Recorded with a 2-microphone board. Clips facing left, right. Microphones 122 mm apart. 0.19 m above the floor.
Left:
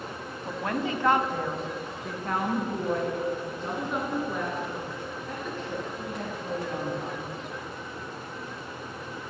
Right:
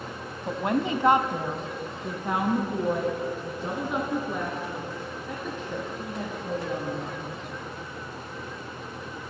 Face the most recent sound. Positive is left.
turn(degrees=0)  # may be behind; listen again after turning